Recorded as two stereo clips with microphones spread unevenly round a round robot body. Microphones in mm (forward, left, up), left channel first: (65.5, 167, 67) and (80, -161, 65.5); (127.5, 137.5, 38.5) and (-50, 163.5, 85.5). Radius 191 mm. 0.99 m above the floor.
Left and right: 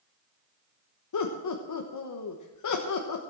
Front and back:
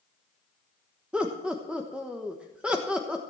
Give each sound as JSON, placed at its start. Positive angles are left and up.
{"t": 1.1, "sound": "laughter", "azimuth_deg": 80, "distance_m": 1.3}